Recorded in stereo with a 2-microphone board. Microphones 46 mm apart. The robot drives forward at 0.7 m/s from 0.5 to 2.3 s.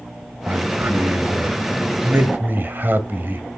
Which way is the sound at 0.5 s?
45° right (ahead or behind).